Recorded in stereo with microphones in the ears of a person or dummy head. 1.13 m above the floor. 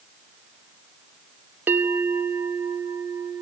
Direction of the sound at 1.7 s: 15° right (ahead or behind).